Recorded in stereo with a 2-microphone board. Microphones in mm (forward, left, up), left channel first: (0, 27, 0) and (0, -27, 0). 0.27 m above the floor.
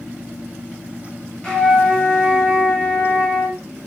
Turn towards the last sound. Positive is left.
turn(degrees=20)  # may be behind; listen again after turning